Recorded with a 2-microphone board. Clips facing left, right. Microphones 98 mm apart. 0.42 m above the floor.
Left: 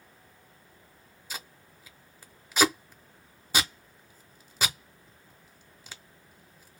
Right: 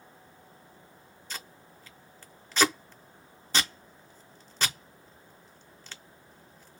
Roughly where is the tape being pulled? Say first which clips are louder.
Left 1 dB; centre.